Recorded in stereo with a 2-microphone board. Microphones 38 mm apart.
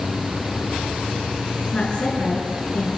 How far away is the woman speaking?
About 5 m.